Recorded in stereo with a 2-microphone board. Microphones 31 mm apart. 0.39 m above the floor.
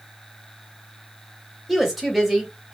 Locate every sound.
1.7 s a woman speaking: 10° right (ahead or behind), 1.2 m